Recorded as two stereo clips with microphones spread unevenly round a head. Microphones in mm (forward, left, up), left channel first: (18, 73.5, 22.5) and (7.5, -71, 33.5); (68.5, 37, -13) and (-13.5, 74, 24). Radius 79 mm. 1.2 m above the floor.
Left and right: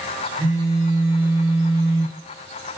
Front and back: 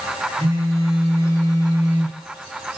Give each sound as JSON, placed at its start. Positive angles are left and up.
{"t": 0.4, "sound": "a phone buzzing", "azimuth_deg": -175, "distance_m": 1.6}